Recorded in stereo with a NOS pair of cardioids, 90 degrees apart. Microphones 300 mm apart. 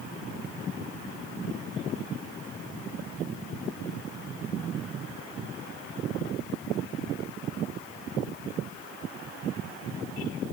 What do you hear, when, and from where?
Only background noise.